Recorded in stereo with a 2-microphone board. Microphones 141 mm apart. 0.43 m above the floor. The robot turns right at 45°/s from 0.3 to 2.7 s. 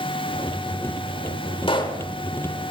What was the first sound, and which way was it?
A pop, 40° left (ahead or behind).